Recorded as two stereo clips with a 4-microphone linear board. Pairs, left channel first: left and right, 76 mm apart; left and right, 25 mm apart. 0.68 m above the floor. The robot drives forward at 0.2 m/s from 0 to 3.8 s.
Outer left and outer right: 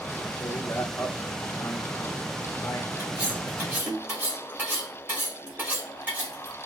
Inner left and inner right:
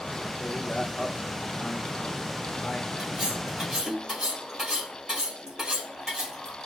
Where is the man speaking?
40° left (ahead or behind), 1.0 m; by 2.9 s 45° left (ahead or behind), 1.0 m.